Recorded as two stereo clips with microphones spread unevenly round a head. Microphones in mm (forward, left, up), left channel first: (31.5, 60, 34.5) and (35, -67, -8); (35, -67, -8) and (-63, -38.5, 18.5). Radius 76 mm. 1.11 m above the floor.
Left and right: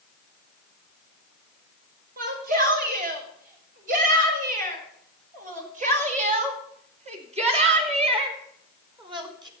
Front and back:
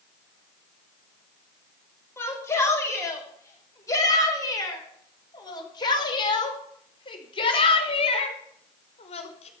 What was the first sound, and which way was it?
A shout, 80° right.